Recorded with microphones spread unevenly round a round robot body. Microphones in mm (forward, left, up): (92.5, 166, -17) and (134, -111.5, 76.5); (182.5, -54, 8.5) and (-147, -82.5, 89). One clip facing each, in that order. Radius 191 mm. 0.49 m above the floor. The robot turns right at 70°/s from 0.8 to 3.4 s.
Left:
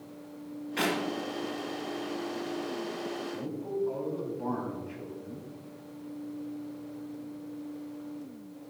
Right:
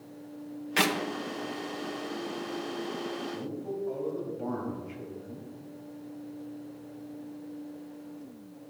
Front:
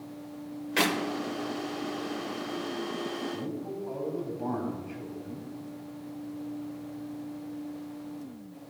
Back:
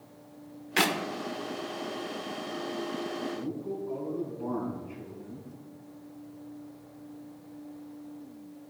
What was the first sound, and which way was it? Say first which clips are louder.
A clap: right 1 dB, front 1 dB; 105° right.